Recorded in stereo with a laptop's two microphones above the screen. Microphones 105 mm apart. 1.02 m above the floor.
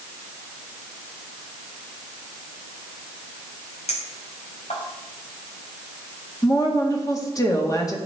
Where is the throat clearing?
No throat clearing in this recording.